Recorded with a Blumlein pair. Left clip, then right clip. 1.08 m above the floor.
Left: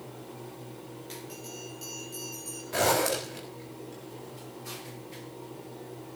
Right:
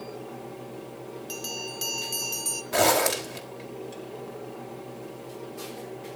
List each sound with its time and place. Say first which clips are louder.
0.0 s a fan: right 5 dB; 65° right, 3 m
1.3 s a bell: right 8 dB; 35° right, 1.6 m
2.7 s a zipper: right 3 dB; 70° right, 3.5 m